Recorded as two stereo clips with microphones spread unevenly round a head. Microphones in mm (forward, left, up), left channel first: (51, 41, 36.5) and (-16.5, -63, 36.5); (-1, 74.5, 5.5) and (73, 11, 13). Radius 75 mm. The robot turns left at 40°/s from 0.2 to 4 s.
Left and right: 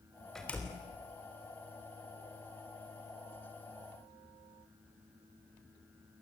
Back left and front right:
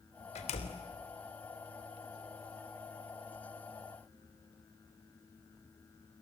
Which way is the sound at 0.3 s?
145° left.